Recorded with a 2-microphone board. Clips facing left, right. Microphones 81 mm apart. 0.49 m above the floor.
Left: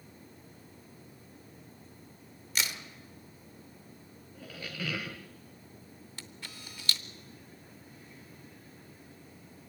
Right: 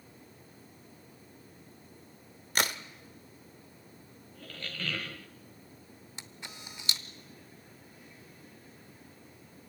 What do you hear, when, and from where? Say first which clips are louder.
2.5 s a crack: right 5 dB; 50° right (ahead or behind), 1.0 m
4.3 s a squeak: left 1 dB; 10° left (ahead or behind), 0.8 m
6.2 s a camera shutter: right 1 dB; 20° right (ahead or behind), 0.7 m